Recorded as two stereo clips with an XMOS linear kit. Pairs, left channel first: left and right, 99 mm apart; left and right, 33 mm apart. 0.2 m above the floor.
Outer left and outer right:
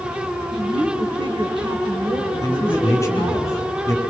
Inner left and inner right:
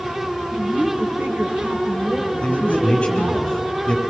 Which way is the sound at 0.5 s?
55° right (ahead or behind).